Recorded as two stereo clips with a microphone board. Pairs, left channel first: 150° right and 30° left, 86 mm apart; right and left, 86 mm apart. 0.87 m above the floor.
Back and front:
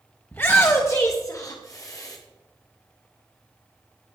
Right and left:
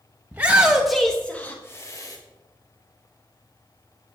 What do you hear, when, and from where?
0.3 s a shout: 155° left, 1.3 m; by 2.2 s 115° right, 1.3 m